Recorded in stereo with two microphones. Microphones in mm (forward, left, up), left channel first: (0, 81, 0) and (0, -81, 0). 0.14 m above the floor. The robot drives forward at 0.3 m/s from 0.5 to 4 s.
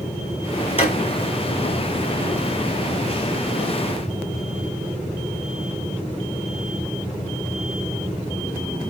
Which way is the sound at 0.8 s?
40° left (ahead or behind).